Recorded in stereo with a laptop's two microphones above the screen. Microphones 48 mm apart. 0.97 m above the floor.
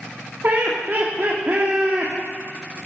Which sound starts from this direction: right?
Laughter, at 0.4 s.